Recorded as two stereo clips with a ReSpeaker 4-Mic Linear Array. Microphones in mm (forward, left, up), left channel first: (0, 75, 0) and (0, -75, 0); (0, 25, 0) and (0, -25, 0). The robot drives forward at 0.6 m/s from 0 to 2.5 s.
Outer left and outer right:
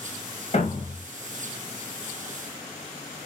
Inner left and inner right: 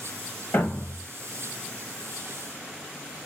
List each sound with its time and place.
0.5 s a thud: 45° left (ahead or behind), 1.9 m; by 1.1 s 50° left (ahead or behind), 1.7 m